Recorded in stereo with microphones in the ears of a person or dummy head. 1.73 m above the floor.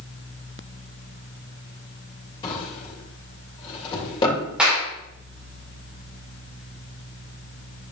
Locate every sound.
2.4 s a drawer: 25° left (ahead or behind), 3 m
4.6 s a clap: 5° right (ahead or behind), 3 m